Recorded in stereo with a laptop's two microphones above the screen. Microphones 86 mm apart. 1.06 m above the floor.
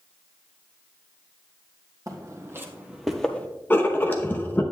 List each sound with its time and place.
2.1 s footsteps: 40° right (ahead or behind), 1.8 m; by 3.5 s 20° left (ahead or behind), 1.1 m
3.7 s writing: 25° left (ahead or behind), 0.8 m